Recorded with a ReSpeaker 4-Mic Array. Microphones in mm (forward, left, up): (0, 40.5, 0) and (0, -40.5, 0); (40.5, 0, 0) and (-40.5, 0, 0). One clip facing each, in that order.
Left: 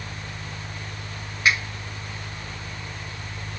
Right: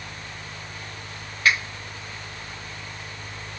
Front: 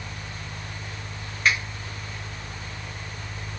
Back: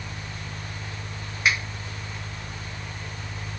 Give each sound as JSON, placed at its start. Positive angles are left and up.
{"t": 1.4, "sound": "a finger snap", "azimuth_deg": 115, "distance_m": 1.4}